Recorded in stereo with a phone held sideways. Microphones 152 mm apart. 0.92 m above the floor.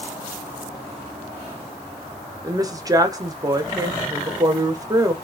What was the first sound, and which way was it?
A woman speaking, 25° right (ahead or behind).